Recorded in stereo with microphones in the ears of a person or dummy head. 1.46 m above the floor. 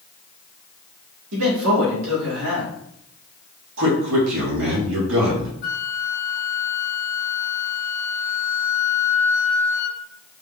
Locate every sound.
1.3 s a man speaking: 75° right (ahead or behind), 2 m
3.8 s a man speaking: 70° right (ahead or behind), 2.5 m
5.6 s a flute: 55° left (ahead or behind), 1.3 m